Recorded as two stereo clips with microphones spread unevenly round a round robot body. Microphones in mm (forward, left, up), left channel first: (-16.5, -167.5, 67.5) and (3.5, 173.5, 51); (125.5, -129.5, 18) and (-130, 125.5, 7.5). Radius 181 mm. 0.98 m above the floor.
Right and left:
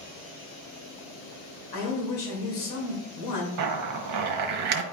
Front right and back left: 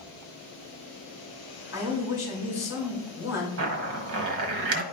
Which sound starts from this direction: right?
A man speaking, at 1.7 s.